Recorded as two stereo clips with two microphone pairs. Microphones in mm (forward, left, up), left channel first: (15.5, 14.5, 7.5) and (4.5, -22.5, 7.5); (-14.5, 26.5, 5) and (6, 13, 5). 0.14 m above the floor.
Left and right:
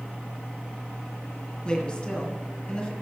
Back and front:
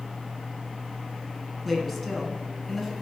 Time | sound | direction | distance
1.6 | a woman speaking | 65° left | 1.6 m